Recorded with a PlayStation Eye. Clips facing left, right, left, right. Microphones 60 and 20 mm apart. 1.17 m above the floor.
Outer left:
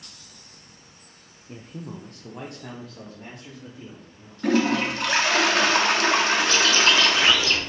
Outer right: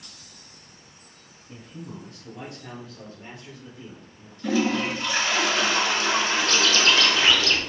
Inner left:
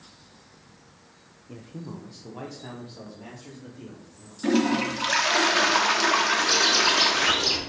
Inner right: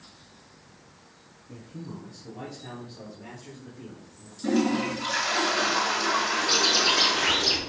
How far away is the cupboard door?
No cupboard door in this recording.